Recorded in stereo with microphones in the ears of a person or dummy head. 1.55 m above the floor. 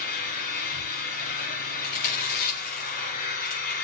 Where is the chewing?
45° left (ahead or behind), 4.5 m.